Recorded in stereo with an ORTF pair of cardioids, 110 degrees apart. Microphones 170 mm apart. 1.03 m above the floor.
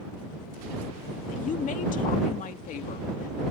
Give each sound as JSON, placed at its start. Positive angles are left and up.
{"t": 1.3, "sound": "a woman speaking", "azimuth_deg": 55}